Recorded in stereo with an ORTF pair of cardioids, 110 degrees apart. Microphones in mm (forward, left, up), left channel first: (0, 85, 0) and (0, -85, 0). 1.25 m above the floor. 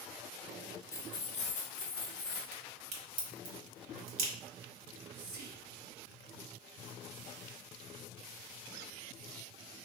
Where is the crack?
65° right, 1.5 m.